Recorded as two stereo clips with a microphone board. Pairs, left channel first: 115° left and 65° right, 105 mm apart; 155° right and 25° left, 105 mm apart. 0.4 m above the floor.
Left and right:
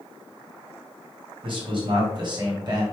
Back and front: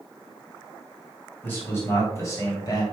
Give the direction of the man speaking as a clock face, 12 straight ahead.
3 o'clock.